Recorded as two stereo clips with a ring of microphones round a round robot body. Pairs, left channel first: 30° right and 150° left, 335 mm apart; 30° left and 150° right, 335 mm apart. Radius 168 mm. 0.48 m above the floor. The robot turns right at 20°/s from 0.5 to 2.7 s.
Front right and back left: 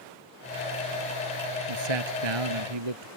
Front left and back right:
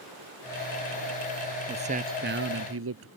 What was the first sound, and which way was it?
A man speaking, 135° left.